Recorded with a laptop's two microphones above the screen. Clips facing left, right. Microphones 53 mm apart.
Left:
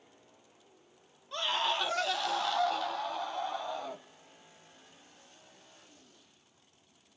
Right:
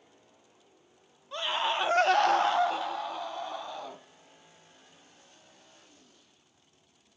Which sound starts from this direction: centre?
A scream, at 1.3 s.